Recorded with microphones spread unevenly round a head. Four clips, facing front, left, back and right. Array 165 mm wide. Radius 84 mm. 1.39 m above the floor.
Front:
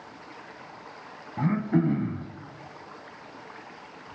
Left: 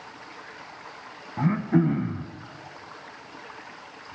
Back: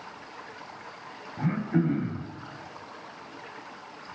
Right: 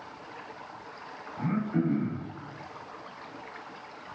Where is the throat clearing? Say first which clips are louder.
Left 6 dB, front 2 dB; 75° left, 1.7 m.